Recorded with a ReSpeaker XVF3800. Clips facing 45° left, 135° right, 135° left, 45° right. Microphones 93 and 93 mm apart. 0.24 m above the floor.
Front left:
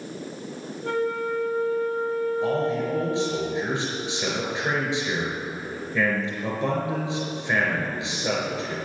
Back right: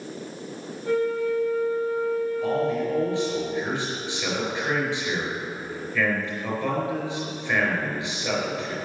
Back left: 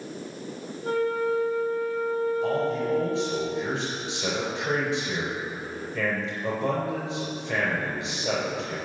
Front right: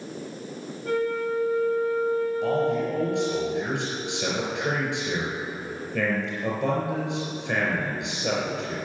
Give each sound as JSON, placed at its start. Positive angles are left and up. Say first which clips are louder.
{"t": 0.8, "sound": "a flute", "louder": "back right 2 dB, back left 1 dB", "azimuth_deg": 75, "distance_m": 3.5}
{"t": 2.4, "sound": "a man speaking", "louder": "even, front right 2 dB", "azimuth_deg": -25, "distance_m": 5.0}